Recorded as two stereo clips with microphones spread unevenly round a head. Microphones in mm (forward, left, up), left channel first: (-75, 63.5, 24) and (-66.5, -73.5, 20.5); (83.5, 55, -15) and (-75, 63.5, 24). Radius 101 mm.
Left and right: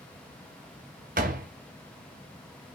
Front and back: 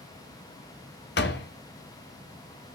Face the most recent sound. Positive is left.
turn(degrees=-40)